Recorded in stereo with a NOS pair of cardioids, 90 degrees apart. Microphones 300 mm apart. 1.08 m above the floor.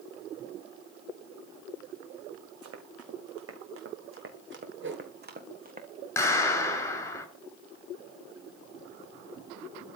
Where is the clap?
10° left, 8.5 m.